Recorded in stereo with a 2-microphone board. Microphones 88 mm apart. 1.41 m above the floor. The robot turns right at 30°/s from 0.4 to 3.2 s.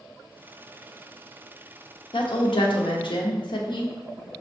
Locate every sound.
2.1 s a woman speaking: 80° left, 0.7 m; by 4.0 s 110° left, 0.7 m